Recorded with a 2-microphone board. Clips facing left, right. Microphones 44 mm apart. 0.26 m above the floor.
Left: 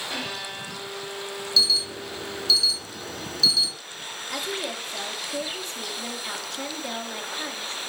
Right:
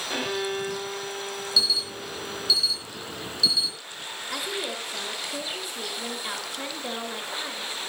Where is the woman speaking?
15° right (ahead or behind), 4 m.